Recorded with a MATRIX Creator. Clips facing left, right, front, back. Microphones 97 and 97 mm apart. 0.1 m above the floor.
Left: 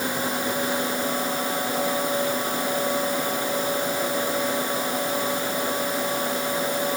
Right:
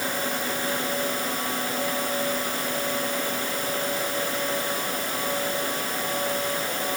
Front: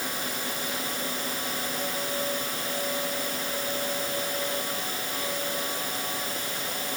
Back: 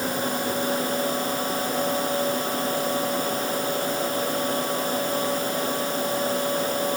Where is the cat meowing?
No cat meowing in this recording.